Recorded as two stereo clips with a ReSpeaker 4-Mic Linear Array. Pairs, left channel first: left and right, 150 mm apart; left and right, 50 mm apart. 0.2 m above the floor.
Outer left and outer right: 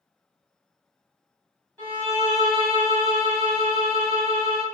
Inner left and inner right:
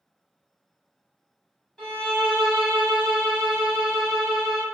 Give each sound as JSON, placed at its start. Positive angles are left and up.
{"t": 1.8, "sound": "a violin", "side_deg": 15, "distance_m": 1.5}